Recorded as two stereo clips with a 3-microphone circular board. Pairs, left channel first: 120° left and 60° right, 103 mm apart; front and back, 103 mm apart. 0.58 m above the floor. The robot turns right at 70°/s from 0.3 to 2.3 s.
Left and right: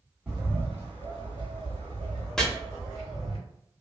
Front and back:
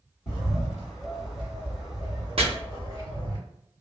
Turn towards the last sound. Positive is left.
turn(degrees=-155)